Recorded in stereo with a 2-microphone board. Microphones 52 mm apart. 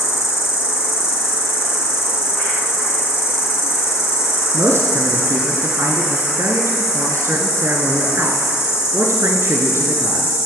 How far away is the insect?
About 3 m.